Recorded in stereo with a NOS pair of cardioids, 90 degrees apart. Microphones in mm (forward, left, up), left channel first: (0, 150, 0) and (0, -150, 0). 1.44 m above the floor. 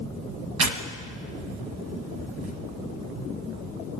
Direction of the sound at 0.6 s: 60° right.